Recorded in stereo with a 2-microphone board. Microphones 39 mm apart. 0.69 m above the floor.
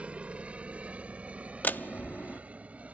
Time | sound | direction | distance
0.0 | a helicopter | 35° right (ahead or behind) | ?
1.6 | a door slam | 50° left (ahead or behind) | ?